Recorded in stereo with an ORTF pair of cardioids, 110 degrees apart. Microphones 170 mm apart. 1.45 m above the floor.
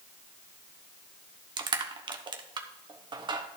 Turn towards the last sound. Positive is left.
turn(degrees=-30)